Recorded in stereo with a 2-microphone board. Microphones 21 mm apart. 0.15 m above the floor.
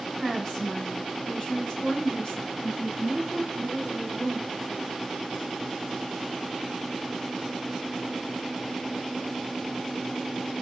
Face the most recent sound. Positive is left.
turn(degrees=50)  # may be behind; listen again after turning